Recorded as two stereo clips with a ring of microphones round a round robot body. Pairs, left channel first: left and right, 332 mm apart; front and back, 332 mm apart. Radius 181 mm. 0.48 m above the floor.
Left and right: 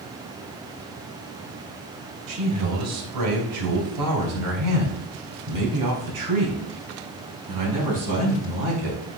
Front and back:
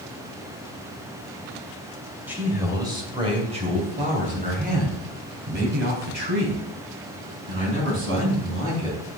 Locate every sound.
2.3 s a man speaking: 95° right, 2.5 m; by 9.0 s 130° right, 5.5 m